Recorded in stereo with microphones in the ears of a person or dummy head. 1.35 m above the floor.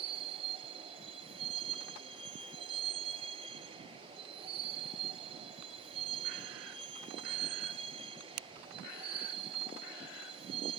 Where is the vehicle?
30° right (ahead or behind).